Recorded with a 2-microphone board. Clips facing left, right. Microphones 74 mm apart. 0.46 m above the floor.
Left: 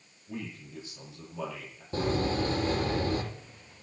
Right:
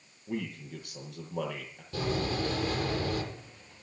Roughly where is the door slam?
Left.